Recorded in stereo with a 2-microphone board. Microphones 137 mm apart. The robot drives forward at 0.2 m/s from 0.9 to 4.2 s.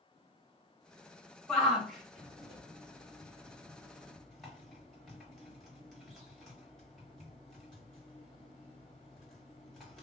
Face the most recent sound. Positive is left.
turn(degrees=0)  # may be behind; listen again after turning